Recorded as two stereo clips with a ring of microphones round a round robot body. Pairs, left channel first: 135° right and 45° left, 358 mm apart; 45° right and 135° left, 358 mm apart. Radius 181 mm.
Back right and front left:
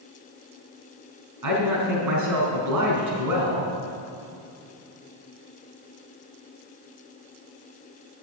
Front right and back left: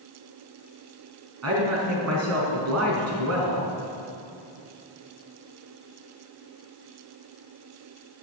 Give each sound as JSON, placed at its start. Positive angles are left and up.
{"t": 1.4, "sound": "a man speaking", "azimuth_deg": 85, "distance_m": 4.5}